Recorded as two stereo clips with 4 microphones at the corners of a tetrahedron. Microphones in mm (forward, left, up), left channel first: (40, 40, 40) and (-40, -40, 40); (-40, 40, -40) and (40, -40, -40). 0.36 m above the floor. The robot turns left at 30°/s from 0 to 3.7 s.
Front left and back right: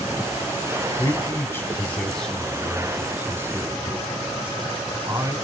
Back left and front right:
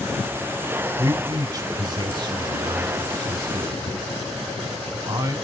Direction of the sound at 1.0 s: Straight ahead.